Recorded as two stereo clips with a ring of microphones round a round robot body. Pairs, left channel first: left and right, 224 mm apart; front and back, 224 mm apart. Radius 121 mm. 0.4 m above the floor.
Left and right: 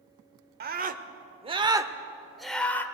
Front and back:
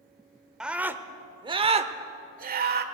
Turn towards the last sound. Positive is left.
turn(degrees=165)